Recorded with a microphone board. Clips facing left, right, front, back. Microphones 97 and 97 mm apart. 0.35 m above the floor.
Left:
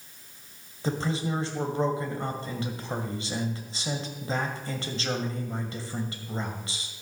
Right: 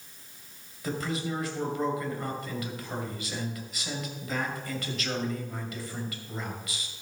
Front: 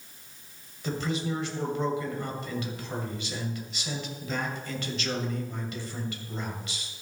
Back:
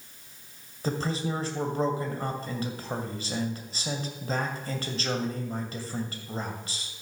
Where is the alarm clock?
No alarm clock in this recording.